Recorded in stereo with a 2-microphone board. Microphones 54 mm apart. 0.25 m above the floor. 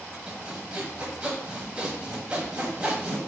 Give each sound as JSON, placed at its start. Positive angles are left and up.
{"t": 0.3, "sound": "sawing", "side_deg": -20, "distance_m": 1.2}